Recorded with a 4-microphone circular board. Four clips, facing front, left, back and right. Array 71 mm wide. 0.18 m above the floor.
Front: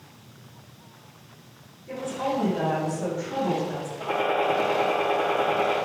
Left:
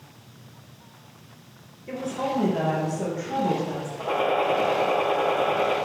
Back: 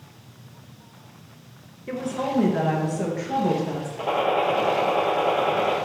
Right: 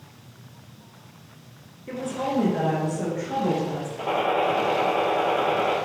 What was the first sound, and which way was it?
A woman speaking, 165° right.